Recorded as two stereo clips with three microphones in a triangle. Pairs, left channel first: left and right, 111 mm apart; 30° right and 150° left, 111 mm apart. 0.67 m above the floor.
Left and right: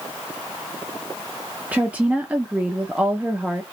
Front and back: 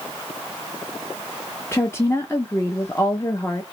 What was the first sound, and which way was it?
A woman speaking, 30° right.